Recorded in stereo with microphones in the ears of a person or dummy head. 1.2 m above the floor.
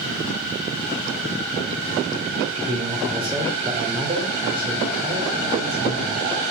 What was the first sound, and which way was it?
A man speaking, 20° right (ahead or behind).